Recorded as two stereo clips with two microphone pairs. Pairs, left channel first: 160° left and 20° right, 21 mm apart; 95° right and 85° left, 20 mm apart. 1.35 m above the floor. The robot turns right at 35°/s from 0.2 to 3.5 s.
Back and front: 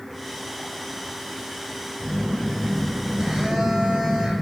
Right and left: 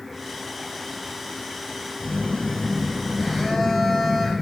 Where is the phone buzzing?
75° right, 1.1 m; by 4.3 s 25° right, 1.1 m.